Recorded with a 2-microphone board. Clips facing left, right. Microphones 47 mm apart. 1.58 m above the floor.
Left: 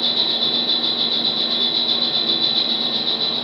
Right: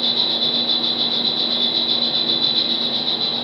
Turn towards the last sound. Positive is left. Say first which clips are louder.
# even
turn(degrees=-20)  # may be behind; listen again after turning